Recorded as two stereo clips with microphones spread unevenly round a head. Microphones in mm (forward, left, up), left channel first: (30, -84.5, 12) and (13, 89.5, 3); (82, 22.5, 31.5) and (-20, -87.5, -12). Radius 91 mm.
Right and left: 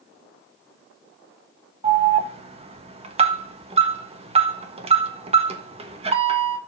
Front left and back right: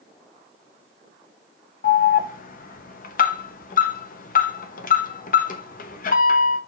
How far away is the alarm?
About 1.2 m.